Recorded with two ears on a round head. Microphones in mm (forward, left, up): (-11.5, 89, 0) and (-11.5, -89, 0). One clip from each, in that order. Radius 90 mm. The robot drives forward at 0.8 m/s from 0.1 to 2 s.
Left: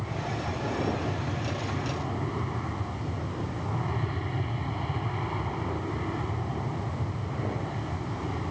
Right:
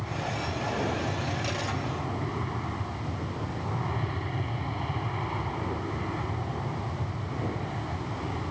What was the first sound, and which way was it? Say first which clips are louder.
An aircraft: right 1 dB; 10° right (ahead or behind).